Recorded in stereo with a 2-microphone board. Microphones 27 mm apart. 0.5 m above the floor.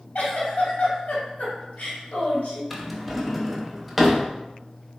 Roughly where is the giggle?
Left.